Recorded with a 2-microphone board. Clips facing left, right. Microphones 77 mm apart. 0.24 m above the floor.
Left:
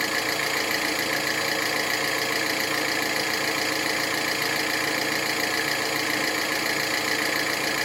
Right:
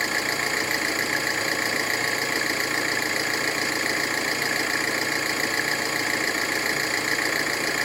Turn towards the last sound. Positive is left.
turn(degrees=-25)  # may be behind; listen again after turning